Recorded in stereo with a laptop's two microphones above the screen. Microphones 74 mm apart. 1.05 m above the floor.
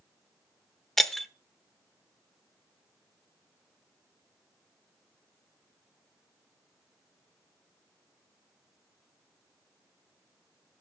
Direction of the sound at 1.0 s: 5° left (ahead or behind).